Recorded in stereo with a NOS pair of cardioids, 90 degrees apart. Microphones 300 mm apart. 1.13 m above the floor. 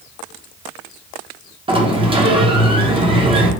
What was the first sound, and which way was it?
A sliding door, 20° right.